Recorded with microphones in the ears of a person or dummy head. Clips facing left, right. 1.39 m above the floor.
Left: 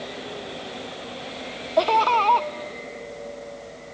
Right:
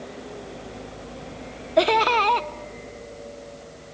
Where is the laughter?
25° right (ahead or behind), 1.0 m.